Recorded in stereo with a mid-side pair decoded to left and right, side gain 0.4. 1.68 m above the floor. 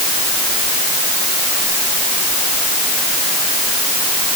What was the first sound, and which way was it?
Only background noise.